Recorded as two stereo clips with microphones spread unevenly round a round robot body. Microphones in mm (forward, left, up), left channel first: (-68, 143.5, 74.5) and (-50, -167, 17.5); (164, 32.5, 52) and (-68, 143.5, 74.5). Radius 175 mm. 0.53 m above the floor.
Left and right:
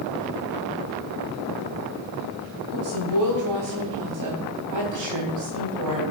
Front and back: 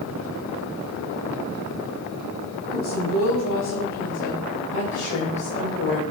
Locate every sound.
2.7 s a woman speaking: 60° right, 4.5 m; by 6.0 s 80° right, 2.5 m